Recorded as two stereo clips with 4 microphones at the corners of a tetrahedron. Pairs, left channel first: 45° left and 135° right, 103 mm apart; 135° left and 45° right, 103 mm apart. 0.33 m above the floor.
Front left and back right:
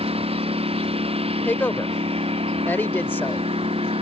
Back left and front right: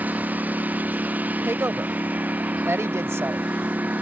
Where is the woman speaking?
10° right.